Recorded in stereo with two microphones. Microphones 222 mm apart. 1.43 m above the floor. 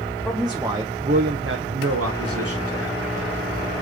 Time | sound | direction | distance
0.2 | a man speaking | 5° left (ahead or behind) | 0.7 m